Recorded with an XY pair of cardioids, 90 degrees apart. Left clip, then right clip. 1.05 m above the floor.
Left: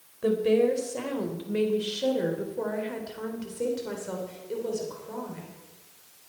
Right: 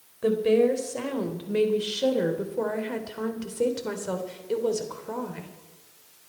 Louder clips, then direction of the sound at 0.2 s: Right 2 dB; 15° right.